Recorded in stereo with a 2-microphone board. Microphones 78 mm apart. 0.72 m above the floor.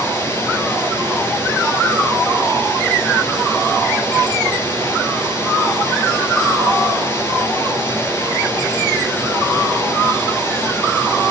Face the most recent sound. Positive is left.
turn(degrees=30)  # may be behind; listen again after turning